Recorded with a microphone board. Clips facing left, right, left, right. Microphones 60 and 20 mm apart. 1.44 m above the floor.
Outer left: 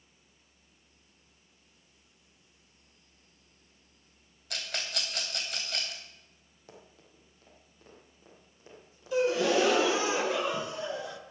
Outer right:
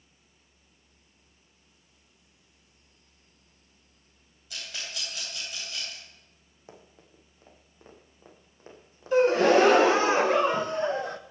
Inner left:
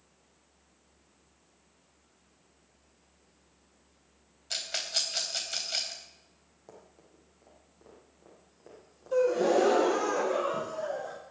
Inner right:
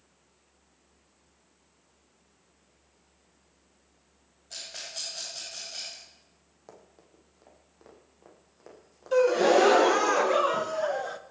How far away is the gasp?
About 0.9 m.